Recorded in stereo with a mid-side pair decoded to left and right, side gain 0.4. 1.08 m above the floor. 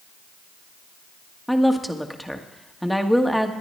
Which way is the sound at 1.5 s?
Straight ahead.